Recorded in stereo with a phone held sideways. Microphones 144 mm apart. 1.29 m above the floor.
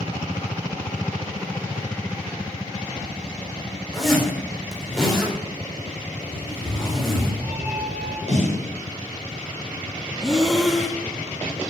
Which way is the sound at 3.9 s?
Centre (ahead or behind).